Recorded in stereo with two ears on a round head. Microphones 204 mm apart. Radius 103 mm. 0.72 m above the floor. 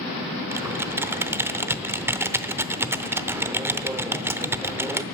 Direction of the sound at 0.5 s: 10° right (ahead or behind).